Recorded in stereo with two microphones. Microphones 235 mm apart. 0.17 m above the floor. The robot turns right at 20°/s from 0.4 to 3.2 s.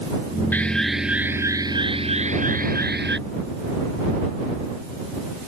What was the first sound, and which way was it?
An alarm, 175° left.